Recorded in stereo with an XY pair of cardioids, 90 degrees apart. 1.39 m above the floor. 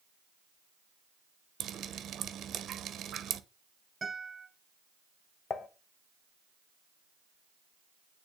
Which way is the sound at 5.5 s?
60° left.